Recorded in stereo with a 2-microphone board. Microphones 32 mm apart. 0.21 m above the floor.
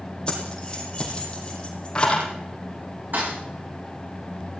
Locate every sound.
0.3 s keys jangling: 25° left (ahead or behind), 4.5 m
3.1 s a thud: 70° right (ahead or behind), 7 m